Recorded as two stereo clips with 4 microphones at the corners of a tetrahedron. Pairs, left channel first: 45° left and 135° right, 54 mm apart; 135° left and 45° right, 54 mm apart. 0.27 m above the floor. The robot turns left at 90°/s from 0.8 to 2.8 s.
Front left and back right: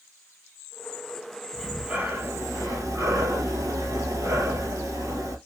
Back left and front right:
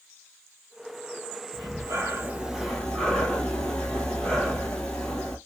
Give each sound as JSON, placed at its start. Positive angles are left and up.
{"t": 1.5, "sound": "breathing", "azimuth_deg": -35, "distance_m": 1.9}